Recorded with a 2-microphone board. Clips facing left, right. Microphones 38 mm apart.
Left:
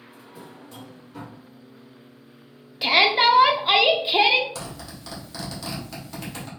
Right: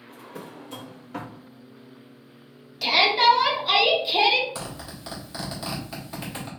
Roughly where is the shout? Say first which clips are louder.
Left 1 dB; left.